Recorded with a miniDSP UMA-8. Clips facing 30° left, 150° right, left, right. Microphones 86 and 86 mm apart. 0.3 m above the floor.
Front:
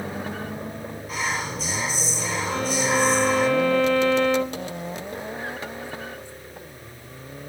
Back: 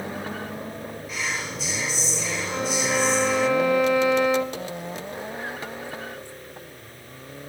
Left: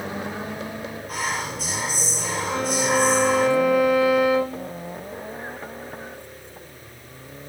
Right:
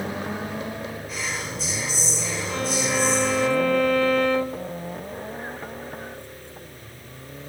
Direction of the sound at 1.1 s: 70° left.